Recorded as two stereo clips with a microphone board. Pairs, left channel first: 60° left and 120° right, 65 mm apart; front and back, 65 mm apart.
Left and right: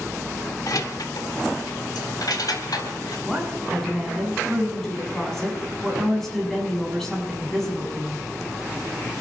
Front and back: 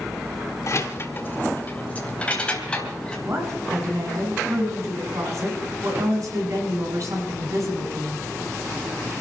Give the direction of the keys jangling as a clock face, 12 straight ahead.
11 o'clock.